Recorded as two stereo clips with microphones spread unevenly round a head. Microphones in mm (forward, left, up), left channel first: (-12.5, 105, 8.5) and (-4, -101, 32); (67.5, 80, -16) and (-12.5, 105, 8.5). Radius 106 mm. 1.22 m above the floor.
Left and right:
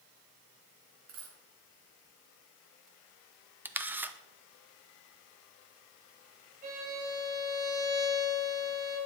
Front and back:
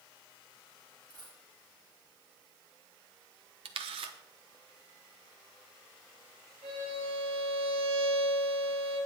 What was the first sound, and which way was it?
A dropped coin, 105° right.